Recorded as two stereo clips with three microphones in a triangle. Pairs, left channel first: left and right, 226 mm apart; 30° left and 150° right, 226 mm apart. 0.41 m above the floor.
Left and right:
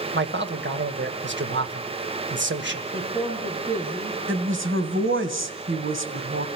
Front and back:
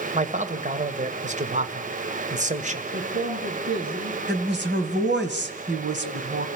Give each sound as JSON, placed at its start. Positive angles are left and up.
{"t": 0.1, "sound": "a man speaking", "azimuth_deg": -100, "distance_m": 1.8}
{"t": 2.9, "sound": "a man speaking", "azimuth_deg": -155, "distance_m": 7.0}
{"t": 4.3, "sound": "a woman speaking", "azimuth_deg": -115, "distance_m": 2.5}